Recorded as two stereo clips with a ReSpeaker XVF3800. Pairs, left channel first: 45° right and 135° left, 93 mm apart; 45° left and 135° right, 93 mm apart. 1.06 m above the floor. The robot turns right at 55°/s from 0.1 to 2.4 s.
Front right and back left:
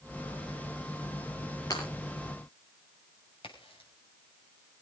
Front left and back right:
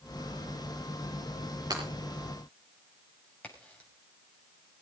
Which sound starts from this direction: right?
Breaking glass, at 1.7 s.